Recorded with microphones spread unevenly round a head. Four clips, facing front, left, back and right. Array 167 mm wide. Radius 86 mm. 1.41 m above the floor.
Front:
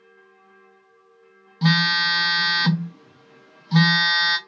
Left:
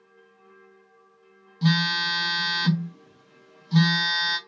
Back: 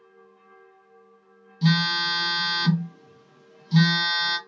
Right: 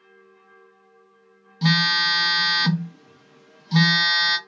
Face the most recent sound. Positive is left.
turn(degrees=-25)